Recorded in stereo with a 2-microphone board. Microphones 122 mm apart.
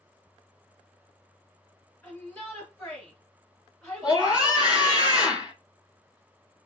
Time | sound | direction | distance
2.0 | a shout | 10° left (ahead or behind) | 1.9 m
4.0 | a scream | 15° right (ahead or behind) | 2 m